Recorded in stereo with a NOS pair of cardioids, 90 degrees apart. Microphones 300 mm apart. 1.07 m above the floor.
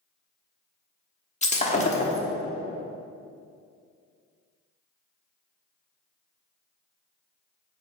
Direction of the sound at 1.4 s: 25° left.